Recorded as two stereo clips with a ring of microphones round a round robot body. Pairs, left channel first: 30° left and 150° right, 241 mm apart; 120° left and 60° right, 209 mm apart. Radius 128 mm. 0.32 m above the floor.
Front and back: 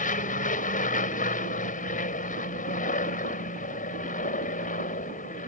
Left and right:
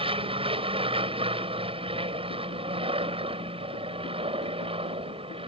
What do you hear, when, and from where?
0.0 s an aircraft: 10° right